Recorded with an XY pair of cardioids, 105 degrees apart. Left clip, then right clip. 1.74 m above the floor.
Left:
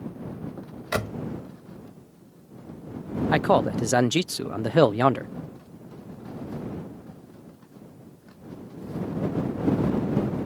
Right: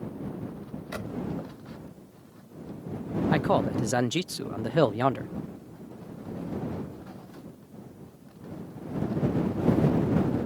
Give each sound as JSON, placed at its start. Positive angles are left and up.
{"t": 0.9, "sound": "a door slam", "azimuth_deg": 70}
{"t": 3.3, "sound": "a man speaking", "azimuth_deg": 35}